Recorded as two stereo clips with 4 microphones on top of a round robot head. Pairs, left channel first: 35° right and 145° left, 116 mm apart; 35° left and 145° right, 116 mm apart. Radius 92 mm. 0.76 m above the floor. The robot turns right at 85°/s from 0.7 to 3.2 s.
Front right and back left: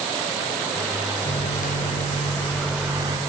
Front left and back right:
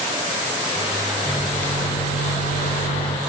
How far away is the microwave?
About 2 m.